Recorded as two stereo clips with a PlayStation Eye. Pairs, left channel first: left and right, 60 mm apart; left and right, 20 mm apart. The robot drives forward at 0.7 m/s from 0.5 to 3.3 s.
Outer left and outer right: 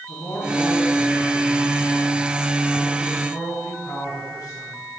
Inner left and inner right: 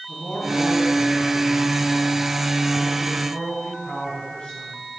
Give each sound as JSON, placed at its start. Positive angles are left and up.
{"t": 0.1, "sound": "a man speaking", "side_deg": 65, "distance_m": 5.5}